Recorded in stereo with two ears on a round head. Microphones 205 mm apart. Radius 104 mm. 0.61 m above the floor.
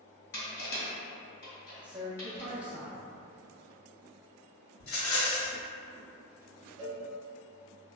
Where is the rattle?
65° left (ahead or behind), 0.7 m.